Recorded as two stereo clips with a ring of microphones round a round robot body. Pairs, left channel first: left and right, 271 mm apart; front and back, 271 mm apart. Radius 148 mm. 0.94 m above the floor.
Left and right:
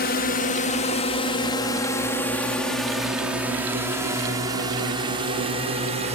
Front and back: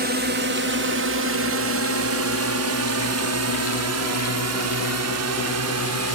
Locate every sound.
0.0 s a drone: 135° left; by 6.2 s 160° right